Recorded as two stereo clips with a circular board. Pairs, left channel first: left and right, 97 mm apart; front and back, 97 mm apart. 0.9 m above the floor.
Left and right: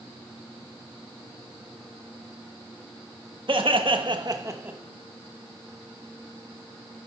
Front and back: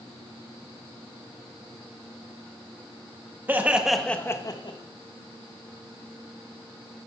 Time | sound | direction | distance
3.5 | laughter | 110° right | 1.3 m